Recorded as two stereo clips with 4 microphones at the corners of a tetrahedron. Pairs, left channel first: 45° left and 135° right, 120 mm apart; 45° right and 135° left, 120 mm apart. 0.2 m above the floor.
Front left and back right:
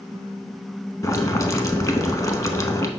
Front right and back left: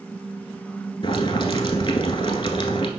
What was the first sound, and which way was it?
Boiling, 10° right.